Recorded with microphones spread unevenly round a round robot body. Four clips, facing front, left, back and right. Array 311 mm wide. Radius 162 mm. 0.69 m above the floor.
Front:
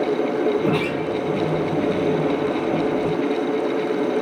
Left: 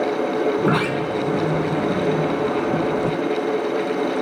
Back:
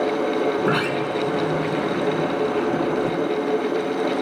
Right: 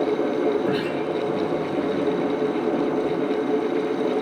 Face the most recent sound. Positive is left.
turn(degrees=90)